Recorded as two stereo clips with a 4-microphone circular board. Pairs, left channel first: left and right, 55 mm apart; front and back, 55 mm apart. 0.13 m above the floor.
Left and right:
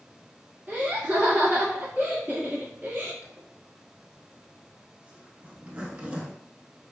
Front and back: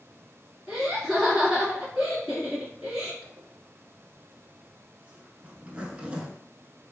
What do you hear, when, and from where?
0.7 s laughter: 105° right, 1.5 m
3.2 s a zipper: 130° right, 0.5 m